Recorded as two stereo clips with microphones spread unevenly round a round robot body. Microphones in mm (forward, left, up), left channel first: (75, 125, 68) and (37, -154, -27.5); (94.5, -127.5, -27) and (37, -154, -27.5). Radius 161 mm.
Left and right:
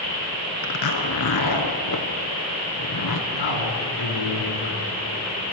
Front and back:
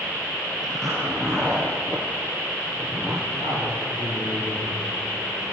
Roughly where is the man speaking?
Left.